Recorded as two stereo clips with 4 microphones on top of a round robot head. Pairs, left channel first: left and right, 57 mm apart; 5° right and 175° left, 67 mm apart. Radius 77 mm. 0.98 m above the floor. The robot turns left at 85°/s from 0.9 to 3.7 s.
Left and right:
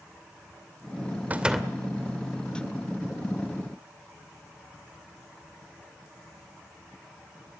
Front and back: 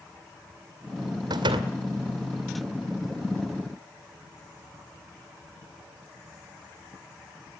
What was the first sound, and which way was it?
A door slam, 150° right.